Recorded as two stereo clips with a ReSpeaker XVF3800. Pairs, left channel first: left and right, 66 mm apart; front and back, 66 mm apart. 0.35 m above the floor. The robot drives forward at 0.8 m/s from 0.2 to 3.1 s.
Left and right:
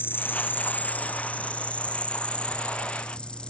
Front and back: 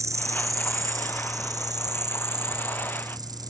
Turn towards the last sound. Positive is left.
turn(degrees=165)